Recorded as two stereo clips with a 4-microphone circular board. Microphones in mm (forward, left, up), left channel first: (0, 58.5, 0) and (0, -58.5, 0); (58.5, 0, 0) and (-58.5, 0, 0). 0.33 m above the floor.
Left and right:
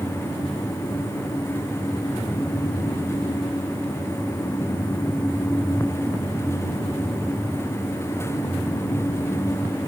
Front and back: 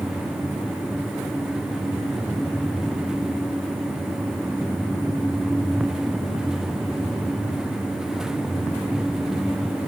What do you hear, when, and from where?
Only background noise.